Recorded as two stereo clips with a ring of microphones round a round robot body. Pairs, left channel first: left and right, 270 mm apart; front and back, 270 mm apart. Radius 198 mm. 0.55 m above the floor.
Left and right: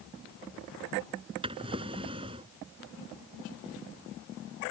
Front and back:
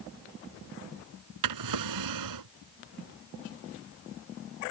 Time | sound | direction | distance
1.4 | a drawer | 170° right | ?